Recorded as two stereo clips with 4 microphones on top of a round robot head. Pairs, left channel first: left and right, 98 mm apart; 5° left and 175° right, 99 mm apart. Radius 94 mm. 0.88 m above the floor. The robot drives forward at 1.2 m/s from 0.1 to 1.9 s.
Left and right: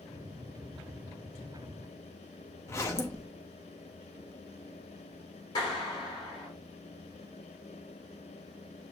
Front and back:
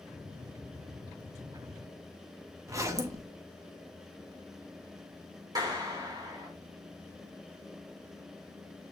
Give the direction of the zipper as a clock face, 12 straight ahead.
7 o'clock.